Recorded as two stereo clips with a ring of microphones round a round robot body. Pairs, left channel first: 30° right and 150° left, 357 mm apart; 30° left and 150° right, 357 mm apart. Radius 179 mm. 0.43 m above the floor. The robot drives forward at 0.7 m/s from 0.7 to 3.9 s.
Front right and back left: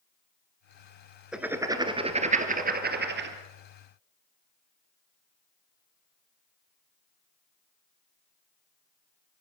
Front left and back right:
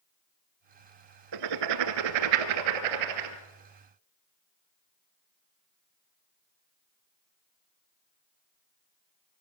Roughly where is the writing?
Behind right.